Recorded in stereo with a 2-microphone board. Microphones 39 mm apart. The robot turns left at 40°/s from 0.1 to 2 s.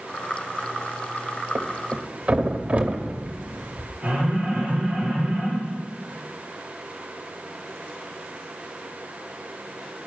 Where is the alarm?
20° right (ahead or behind), 6.5 m.